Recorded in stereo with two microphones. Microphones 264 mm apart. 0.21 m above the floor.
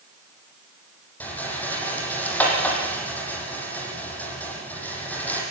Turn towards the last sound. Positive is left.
turn(degrees=5)  # may be behind; listen again after turning